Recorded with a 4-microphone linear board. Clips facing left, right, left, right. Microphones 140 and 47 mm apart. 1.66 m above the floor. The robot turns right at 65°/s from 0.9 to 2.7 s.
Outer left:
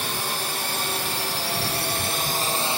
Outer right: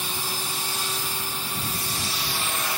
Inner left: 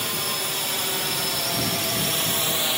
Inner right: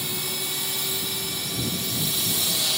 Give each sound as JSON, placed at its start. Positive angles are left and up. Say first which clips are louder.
{"t": 0.0, "sound": "a drone", "louder": "outer left 3 dB, inner left 4 dB", "side_deg": 65}